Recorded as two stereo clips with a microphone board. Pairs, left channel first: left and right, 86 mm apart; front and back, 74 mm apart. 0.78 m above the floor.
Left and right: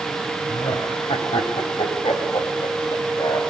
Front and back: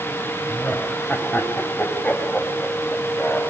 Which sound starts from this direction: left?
Laughter, at 0.5 s.